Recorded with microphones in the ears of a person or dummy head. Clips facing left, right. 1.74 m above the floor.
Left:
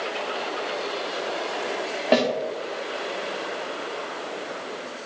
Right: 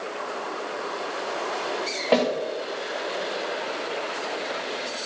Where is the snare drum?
20° left (ahead or behind), 2.5 m.